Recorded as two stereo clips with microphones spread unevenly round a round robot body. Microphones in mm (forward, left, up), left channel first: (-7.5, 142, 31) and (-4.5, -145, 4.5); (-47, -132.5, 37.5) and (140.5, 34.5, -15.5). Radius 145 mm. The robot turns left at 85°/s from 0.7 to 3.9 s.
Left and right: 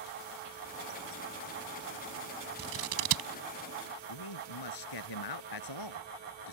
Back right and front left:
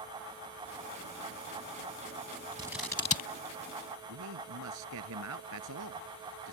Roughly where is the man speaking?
Left.